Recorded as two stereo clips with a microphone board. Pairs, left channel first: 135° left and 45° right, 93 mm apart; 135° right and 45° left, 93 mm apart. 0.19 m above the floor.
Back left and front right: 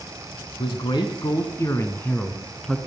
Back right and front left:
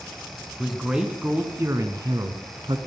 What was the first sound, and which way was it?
A man speaking, 135° left.